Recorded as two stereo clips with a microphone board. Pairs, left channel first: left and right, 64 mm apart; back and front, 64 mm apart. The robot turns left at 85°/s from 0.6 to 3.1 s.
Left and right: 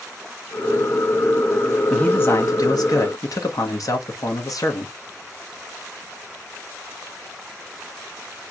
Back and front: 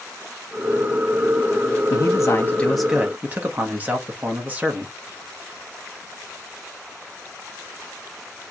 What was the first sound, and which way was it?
A man speaking, 170° left.